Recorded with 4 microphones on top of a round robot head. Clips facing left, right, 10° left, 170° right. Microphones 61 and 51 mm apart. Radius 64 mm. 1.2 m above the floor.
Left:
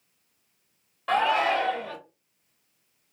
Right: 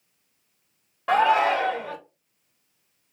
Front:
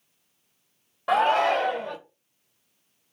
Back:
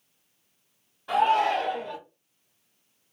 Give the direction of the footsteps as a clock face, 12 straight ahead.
No footsteps in this recording.